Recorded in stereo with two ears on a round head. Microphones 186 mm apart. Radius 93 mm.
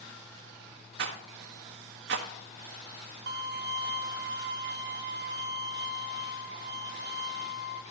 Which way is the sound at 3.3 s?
50° right (ahead or behind).